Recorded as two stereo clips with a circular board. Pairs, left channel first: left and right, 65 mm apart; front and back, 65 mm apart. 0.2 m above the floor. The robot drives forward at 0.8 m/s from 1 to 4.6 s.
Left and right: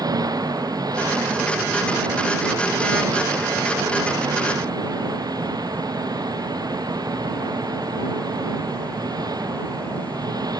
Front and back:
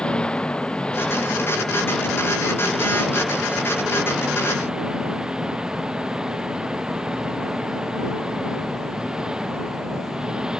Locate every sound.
0.0 s an engine running: 75° right; by 10.6 s 100° right